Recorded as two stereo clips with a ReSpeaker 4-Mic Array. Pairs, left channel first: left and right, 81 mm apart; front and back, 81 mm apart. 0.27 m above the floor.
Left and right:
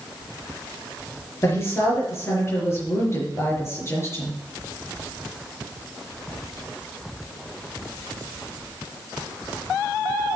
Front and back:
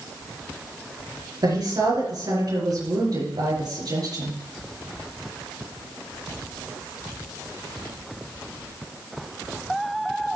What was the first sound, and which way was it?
A woman speaking, 145° left.